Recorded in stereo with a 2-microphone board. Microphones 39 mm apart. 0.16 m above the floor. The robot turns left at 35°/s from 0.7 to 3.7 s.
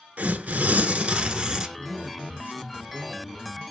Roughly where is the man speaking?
Ahead right.